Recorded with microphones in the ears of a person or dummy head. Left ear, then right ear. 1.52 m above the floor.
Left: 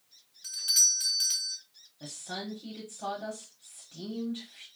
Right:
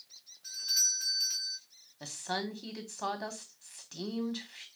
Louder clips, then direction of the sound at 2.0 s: Right 3 dB; 45° right (ahead or behind).